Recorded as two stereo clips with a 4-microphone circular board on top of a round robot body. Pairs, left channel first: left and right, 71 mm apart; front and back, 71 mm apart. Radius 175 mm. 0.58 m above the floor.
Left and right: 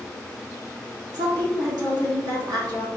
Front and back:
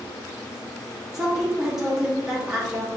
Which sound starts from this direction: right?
A woman speaking, at 1.1 s.